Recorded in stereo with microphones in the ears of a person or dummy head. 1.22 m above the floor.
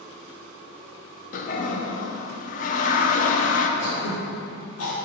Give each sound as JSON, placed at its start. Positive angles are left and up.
{"t": 1.3, "sound": "a toilet flushing", "side_deg": 45, "distance_m": 0.7}
{"t": 3.8, "sound": "throat clearing", "side_deg": 75, "distance_m": 2.5}